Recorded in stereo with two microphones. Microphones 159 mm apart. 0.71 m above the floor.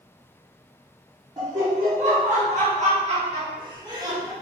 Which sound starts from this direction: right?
Laughter, at 1.4 s.